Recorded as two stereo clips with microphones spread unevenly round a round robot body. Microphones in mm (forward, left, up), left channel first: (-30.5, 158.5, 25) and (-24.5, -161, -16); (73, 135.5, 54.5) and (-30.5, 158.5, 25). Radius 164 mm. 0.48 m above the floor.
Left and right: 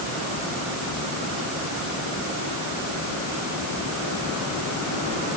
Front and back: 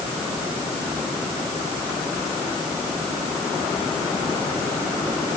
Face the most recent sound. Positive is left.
No sound to turn to.